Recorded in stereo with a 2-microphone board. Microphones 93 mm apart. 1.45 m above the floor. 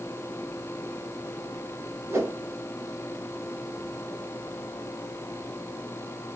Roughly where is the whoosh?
Right.